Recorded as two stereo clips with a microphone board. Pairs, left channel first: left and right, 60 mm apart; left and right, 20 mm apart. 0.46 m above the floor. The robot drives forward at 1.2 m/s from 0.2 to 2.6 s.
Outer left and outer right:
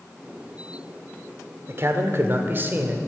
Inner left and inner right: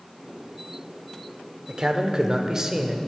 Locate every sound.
1.7 s a man speaking: 40° right (ahead or behind), 1.2 m; by 3.0 s 35° right (ahead or behind), 1.4 m